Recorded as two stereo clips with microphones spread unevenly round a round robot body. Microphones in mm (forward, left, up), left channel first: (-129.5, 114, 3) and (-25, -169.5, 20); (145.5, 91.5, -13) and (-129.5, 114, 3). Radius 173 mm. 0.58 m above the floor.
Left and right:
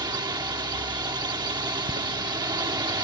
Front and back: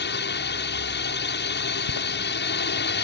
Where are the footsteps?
Straight ahead.